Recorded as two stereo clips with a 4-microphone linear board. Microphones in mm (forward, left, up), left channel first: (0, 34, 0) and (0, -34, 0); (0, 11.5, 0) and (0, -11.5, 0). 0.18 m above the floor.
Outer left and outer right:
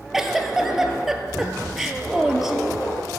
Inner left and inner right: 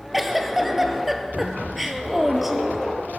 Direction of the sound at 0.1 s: 5° right (ahead or behind).